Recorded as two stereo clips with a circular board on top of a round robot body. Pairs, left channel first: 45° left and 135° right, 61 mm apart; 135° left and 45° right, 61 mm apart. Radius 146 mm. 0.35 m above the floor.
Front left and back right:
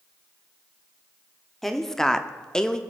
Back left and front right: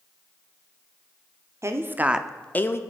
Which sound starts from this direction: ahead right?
A woman speaking, at 1.6 s.